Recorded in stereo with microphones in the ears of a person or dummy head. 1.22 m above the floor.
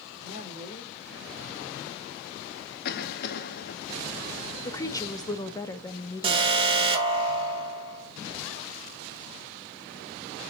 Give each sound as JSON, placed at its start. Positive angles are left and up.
{"t": 0.2, "sound": "a woman speaking", "side_deg": 50, "distance_m": 6.0}
{"t": 2.9, "sound": "a cough", "side_deg": 60, "distance_m": 1.1}
{"t": 4.7, "sound": "a woman speaking", "side_deg": 15, "distance_m": 1.0}
{"t": 6.2, "sound": "an alarm", "side_deg": -30, "distance_m": 2.5}